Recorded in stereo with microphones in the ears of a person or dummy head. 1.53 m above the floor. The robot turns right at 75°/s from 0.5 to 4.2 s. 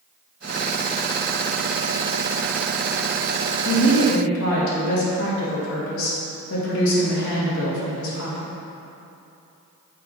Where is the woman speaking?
60° left, 2 m; by 8.5 s 100° left, 2 m.